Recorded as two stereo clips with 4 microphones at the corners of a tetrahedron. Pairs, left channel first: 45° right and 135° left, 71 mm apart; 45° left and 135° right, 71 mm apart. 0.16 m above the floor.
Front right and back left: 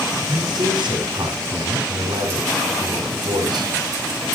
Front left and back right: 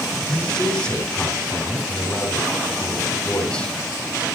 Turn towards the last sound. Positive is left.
turn(degrees=120)